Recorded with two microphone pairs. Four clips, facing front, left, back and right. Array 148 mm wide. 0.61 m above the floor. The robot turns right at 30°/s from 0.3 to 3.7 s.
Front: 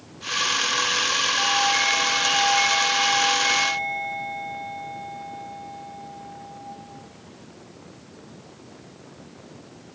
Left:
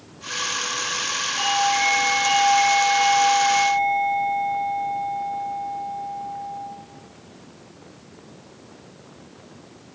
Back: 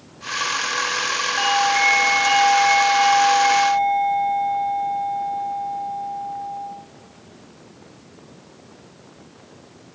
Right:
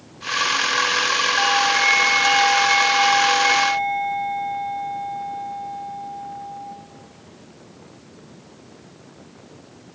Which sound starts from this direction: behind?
A doorbell, at 1.4 s.